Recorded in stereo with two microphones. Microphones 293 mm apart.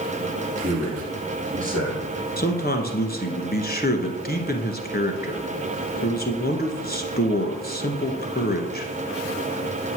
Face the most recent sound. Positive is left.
turn(degrees=30)  # may be behind; listen again after turning